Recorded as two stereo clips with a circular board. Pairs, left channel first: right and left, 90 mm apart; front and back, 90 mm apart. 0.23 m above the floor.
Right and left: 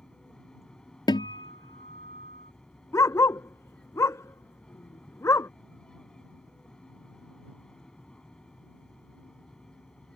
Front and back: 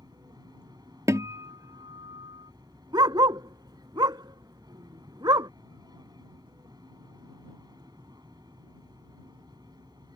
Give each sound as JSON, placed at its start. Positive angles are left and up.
{"t": 0.0, "sound": "an aircraft", "azimuth_deg": -170}
{"t": 1.1, "sound": "a guitar", "azimuth_deg": -125}
{"t": 2.9, "sound": "a dog barking", "azimuth_deg": -145}